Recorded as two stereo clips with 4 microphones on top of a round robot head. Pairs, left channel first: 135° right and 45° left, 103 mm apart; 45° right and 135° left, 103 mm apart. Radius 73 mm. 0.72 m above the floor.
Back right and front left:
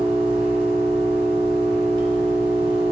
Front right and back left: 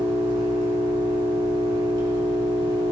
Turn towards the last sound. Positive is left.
turn(degrees=90)